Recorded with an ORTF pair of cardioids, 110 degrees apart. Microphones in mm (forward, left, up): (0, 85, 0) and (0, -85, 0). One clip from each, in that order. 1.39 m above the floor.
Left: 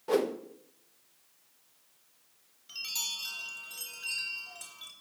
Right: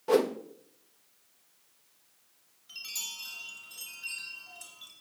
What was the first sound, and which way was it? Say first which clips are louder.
A whoosh: right 3 dB; 15° right.